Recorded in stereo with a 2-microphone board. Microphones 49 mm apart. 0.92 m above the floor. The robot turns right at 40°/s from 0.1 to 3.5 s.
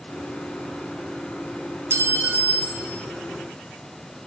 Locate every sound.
1.9 s a clink: 50° right, 0.9 m; by 2.9 s 10° right, 0.9 m